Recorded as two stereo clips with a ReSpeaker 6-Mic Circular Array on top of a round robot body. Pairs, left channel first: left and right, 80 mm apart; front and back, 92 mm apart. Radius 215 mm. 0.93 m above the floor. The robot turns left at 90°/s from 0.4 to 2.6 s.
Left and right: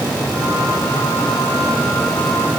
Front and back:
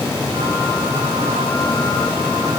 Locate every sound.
Only background noise.